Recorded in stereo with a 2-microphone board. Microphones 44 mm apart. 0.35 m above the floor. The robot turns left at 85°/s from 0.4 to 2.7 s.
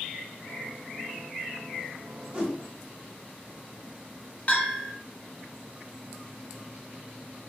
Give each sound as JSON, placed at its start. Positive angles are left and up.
{"t": 2.3, "sound": "a whoosh", "side_deg": -25, "distance_m": 0.9}
{"t": 4.5, "sound": "a bell", "side_deg": 35, "distance_m": 0.6}